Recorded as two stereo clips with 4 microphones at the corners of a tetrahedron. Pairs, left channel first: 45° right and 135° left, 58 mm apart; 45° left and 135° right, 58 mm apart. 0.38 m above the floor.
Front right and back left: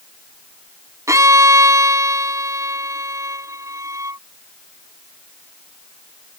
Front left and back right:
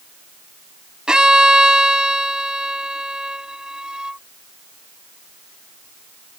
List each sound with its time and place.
1.1 s a violin: 150° left